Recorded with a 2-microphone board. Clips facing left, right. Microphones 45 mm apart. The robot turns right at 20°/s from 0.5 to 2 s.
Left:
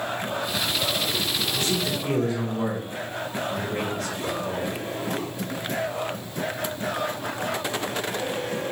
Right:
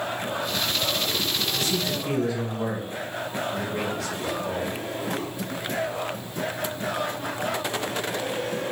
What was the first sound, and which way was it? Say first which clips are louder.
A man speaking: left 1 dB; 55° left (ahead or behind).